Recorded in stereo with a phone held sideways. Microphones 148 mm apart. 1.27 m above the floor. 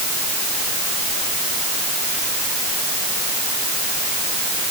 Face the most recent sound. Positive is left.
No sound to turn to.